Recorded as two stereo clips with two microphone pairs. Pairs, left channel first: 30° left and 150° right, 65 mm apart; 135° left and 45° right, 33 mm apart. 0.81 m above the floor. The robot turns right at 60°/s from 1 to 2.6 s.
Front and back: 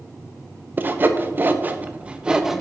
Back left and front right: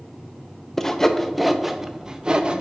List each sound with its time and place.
0.8 s sawing: 165° right, 0.6 m; by 2.6 s 70° right, 0.6 m